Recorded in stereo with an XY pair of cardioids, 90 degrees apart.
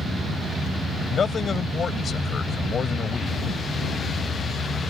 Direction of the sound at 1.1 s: 50° left.